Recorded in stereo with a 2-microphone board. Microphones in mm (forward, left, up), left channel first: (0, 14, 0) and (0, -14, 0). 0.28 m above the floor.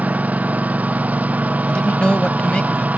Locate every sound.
0.0 s a lawn mower: 60° right (ahead or behind)
1.7 s a man speaking: 35° left (ahead or behind)